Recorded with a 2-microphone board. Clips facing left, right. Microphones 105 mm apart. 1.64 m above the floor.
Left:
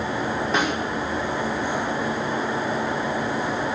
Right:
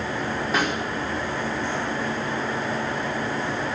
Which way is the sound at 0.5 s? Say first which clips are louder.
Left 1 dB; 5° right (ahead or behind).